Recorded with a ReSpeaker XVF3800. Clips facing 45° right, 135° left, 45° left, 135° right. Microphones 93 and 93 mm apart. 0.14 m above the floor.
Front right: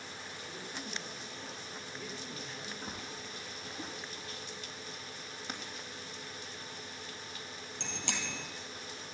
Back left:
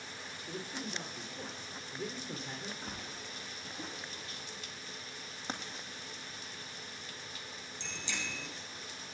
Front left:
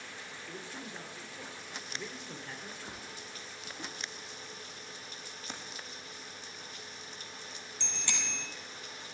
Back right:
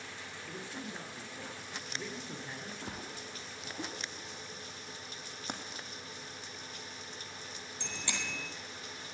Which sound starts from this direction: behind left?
A man speaking, at 0.5 s.